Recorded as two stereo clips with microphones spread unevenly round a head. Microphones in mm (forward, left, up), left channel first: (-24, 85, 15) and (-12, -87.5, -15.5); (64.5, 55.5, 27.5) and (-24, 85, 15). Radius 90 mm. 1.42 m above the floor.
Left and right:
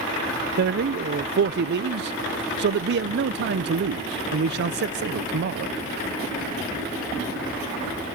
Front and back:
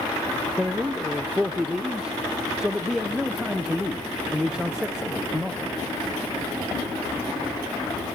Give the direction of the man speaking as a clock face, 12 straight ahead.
4 o'clock.